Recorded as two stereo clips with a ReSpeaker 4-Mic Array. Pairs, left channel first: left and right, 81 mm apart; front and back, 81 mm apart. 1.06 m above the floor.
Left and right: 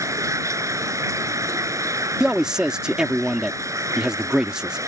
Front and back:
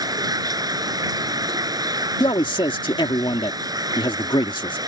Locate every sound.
0.0 s running water: 140° right
2.2 s a man speaking: 10° right